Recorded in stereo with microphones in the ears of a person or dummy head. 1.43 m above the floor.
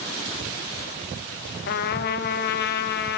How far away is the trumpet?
About 1.8 m.